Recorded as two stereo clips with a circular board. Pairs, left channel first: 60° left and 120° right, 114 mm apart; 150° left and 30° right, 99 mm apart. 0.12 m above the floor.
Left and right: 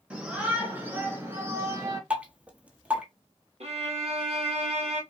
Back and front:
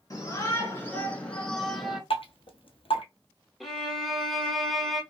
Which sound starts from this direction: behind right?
A violin, at 3.6 s.